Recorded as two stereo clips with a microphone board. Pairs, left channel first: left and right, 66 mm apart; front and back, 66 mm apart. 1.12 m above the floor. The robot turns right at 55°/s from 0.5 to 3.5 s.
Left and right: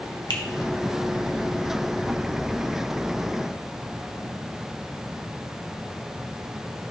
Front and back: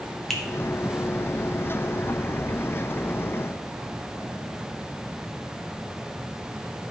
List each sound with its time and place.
0.3 s a finger snap: 85° left, 1.3 m